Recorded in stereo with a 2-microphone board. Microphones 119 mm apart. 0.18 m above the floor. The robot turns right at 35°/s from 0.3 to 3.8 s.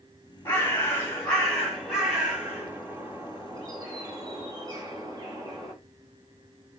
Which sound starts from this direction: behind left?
A bird, at 0.5 s.